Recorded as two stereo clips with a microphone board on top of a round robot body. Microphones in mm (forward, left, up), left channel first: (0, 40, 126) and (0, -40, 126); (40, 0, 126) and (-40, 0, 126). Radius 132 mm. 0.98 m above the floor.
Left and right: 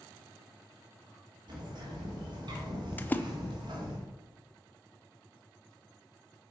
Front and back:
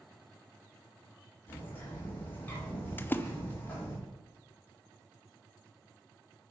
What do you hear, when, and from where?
1.5 s a bird: 65° right, 2 m
3.0 s a splash: 45° left, 0.7 m